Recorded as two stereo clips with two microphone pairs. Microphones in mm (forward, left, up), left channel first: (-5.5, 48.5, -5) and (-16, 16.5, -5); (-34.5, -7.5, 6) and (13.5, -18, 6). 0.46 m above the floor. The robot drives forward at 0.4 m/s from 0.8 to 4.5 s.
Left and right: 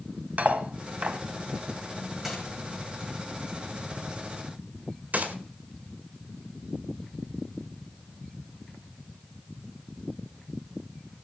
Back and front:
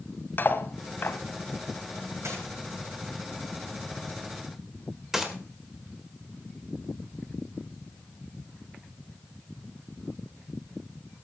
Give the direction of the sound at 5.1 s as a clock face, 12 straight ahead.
3 o'clock.